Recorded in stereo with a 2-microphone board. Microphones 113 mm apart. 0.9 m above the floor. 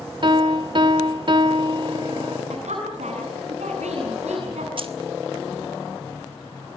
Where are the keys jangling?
50° right (ahead or behind), 1.6 m.